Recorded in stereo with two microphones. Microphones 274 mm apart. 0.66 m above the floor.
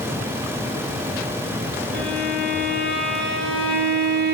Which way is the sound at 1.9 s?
45° right (ahead or behind).